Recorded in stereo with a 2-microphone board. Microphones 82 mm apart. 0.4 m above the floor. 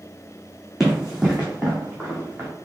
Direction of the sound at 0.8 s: 5° right (ahead or behind).